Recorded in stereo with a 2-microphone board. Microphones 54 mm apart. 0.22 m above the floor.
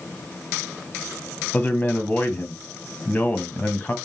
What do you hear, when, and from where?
1.5 s a man speaking: 25° left (ahead or behind), 1.9 m